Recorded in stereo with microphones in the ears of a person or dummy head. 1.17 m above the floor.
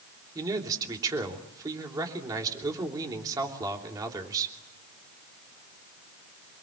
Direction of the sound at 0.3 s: 20° right (ahead or behind).